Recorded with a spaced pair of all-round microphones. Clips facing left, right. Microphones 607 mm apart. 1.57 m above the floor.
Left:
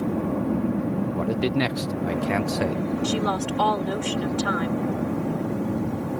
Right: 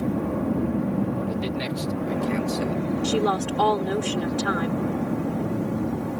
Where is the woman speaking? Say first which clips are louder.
Right 2 dB; 60° right (ahead or behind).